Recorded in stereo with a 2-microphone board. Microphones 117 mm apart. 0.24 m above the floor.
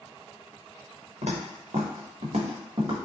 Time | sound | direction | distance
1.2 | footsteps | 70° right (ahead or behind) | 1.1 m